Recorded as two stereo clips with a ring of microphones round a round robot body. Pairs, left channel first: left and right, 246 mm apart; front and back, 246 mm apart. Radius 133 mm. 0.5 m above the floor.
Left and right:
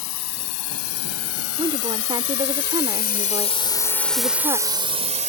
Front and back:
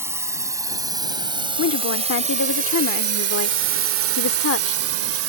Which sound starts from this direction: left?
A drone, at 0.0 s.